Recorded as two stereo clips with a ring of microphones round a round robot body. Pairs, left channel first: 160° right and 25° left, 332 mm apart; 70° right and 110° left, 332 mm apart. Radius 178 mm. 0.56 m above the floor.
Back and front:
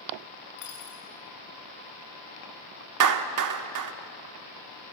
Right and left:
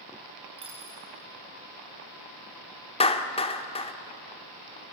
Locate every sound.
0.6 s a dropped coin: 175° right, 6.5 m
3.0 s a clap: 5° left, 1.3 m